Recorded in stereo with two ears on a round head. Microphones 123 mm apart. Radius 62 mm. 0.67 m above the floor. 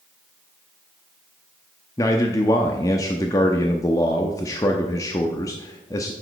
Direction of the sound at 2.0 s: 25° left (ahead or behind).